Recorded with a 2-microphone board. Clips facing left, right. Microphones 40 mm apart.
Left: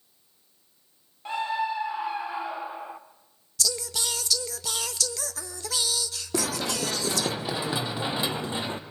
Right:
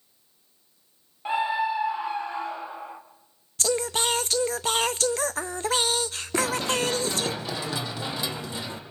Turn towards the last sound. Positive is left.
turn(degrees=35)  # may be behind; listen again after turning